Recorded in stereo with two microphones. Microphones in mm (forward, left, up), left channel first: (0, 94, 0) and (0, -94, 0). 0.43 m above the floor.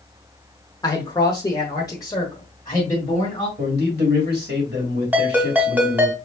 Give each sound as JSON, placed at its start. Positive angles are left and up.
{"t": 0.8, "sound": "a man speaking", "side_deg": 20, "distance_m": 0.9}
{"t": 3.6, "sound": "a man speaking", "side_deg": -60, "distance_m": 2.0}
{"t": 5.1, "sound": "a ringtone", "side_deg": -10, "distance_m": 1.7}